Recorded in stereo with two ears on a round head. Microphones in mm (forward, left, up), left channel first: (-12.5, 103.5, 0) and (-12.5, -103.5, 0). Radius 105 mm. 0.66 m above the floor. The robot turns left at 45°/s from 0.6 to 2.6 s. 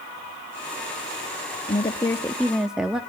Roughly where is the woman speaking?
Ahead left.